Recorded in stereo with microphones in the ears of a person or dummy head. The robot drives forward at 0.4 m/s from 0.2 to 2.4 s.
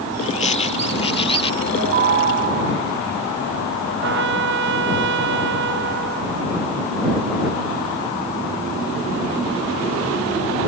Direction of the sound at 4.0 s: 60° right (ahead or behind).